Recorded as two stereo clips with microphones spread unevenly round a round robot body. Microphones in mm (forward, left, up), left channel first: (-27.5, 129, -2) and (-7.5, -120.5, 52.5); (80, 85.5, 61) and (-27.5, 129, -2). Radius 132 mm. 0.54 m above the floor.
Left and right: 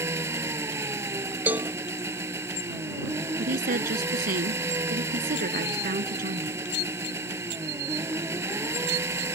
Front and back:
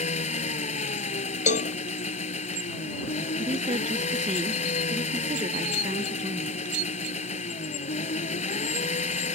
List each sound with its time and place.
0.0 s an engine running: 5° right
1.5 s a cowbell: 10° left
3.4 s a woman speaking: 140° right